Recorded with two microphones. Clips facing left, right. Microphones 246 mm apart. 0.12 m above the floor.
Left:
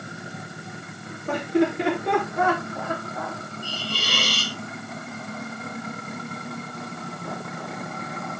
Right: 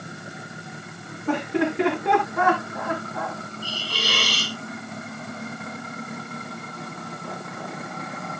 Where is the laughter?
75° right (ahead or behind), 8 m; by 3.4 s 70° right (ahead or behind), 6.5 m.